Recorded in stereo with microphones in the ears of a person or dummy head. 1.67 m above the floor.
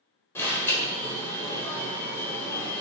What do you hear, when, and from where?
0.3 s an alarm: 15° left (ahead or behind), 1.4 m